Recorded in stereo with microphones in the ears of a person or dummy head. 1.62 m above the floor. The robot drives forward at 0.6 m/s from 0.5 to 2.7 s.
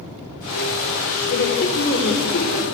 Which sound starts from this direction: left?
A woman speaking, at 1.3 s.